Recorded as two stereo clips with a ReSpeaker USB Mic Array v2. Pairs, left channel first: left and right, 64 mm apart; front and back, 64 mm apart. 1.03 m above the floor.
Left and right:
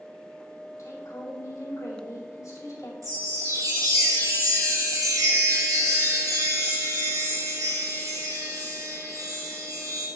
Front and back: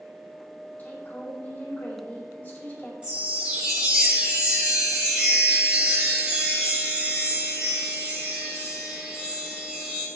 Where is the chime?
110° right, 3.5 m.